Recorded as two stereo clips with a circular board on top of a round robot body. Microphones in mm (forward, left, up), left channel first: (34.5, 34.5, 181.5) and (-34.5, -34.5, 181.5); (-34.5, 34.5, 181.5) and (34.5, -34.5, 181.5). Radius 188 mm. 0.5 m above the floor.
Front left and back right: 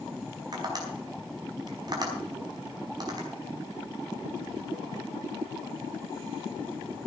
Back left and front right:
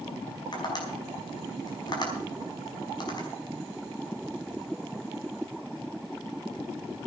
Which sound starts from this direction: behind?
Tapping, at 0.5 s.